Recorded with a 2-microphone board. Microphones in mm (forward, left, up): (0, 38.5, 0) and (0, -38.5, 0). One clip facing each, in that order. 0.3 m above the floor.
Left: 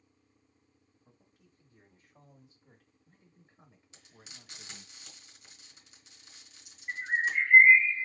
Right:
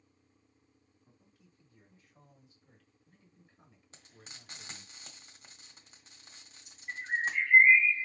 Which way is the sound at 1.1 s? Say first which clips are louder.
Left 1 dB; 30° left (ahead or behind).